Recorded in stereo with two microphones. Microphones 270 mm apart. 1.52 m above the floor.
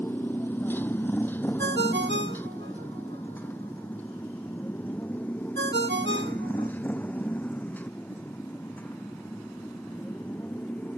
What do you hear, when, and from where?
0.0 s a motorcycle: 5° left (ahead or behind)
1.6 s a ringtone: 40° right (ahead or behind)